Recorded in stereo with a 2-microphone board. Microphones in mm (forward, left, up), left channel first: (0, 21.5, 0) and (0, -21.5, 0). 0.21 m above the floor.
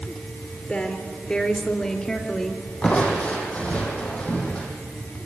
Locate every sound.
0.7 s a woman speaking: 30° left (ahead or behind), 4 m; by 2.6 s 15° left (ahead or behind), 3 m
2.8 s crushing: 30° left (ahead or behind), 6 m